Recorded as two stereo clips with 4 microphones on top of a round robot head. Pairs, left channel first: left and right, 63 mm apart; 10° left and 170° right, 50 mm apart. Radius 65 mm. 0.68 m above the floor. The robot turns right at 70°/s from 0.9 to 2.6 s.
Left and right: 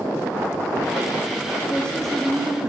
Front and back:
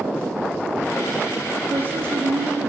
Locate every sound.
1.7 s a woman speaking: 145° left, 0.7 m; by 2.7 s 150° right, 0.7 m